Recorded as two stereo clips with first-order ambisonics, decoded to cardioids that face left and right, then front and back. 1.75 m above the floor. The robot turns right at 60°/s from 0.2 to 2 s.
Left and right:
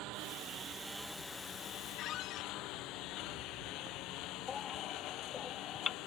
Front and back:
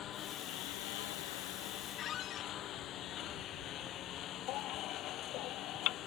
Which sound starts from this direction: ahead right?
A lawn mower, at 0.0 s.